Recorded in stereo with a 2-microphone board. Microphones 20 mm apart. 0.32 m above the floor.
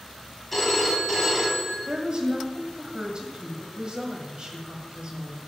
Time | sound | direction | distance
0.5 | a phone ringing | 10° left (ahead or behind) | 1.3 m
1.9 | a woman speaking | 50° right (ahead or behind) | 1.5 m